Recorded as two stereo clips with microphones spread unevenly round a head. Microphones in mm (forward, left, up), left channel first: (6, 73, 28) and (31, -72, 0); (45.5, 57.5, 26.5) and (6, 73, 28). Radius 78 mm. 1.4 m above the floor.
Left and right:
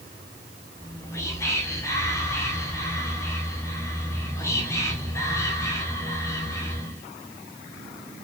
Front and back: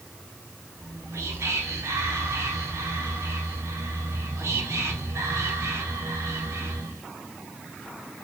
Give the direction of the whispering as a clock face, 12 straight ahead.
6 o'clock.